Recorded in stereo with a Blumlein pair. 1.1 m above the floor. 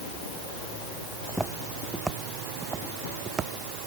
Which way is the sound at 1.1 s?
Straight ahead.